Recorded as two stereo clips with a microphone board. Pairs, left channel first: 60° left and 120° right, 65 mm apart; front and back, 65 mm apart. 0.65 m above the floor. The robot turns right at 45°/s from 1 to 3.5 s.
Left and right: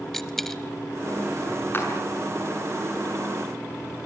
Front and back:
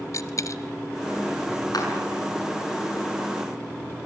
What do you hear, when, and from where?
0.1 s a dropped coin: 25° right, 1.0 m
1.7 s a clap: 5° left, 6.5 m; by 1.9 s 15° left, 6.5 m